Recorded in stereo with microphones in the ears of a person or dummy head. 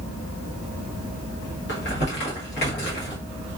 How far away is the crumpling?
About 1.0 m.